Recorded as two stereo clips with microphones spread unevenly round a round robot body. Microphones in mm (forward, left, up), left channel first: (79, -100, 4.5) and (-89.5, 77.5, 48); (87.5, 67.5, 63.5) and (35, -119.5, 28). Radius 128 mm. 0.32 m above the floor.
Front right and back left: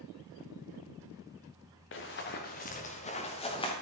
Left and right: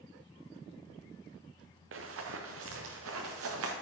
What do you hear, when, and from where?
1.9 s running footsteps: 90° right, 1.8 m; by 3.7 s 120° right, 2.5 m